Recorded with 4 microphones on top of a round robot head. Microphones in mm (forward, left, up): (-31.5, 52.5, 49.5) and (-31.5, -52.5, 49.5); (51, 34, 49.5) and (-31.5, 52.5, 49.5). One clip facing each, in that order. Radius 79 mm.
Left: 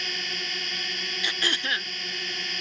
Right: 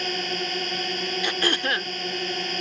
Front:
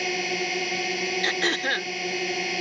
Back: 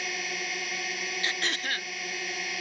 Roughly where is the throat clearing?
Ahead right.